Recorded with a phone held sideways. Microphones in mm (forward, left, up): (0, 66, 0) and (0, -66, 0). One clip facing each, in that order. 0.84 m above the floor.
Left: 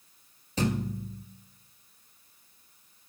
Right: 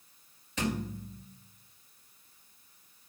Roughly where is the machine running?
No machine running in this recording.